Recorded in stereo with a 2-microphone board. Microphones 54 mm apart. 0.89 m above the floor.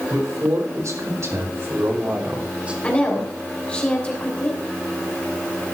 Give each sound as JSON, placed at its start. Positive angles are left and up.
{"t": 0.1, "sound": "a man speaking", "side_deg": -75, "distance_m": 3.5}
{"t": 2.8, "sound": "a woman speaking", "side_deg": 25, "distance_m": 3.0}